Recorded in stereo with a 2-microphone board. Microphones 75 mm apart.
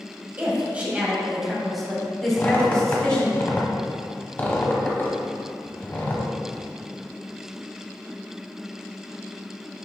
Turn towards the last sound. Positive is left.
turn(degrees=25)  # may be behind; listen again after turning